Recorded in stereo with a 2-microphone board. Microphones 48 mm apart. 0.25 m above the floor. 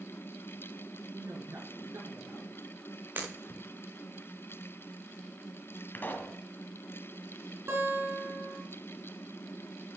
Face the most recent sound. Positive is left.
turn(degrees=-55)  # may be behind; listen again after turning